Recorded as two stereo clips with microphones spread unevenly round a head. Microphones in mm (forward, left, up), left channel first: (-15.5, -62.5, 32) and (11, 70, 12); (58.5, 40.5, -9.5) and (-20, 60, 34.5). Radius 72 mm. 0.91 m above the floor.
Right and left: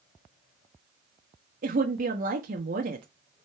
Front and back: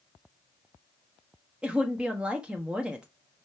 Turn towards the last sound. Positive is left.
turn(degrees=80)